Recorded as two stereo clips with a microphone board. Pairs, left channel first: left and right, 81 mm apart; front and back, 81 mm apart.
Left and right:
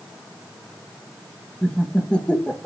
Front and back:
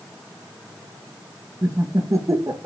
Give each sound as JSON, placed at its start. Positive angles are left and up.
{"t": 1.6, "sound": "laughter", "azimuth_deg": 160, "distance_m": 0.8}